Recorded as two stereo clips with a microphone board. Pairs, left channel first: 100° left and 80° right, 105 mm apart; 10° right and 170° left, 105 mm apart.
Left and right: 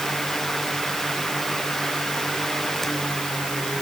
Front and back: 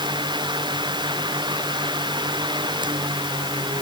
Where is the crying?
No crying in this recording.